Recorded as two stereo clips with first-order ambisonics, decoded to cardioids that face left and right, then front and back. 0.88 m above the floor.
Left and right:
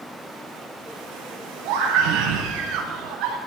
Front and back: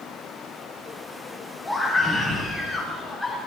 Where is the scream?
85° right, 9 m; by 3.4 s 80° right, 7.5 m.